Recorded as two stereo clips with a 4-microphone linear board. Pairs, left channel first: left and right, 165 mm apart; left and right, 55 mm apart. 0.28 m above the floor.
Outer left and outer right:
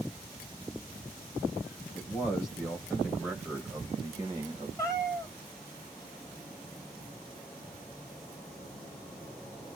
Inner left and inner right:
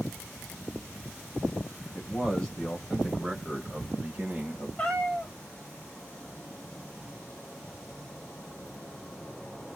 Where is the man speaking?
25° left (ahead or behind), 1.4 m; by 4.7 s 30° right (ahead or behind), 1.5 m.